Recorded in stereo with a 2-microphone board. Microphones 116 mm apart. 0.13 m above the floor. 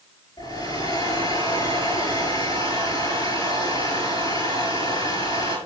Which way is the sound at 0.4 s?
35° left (ahead or behind).